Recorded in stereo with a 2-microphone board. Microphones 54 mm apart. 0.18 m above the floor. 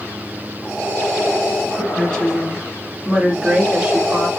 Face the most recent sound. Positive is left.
turn(degrees=-25)  # may be behind; listen again after turning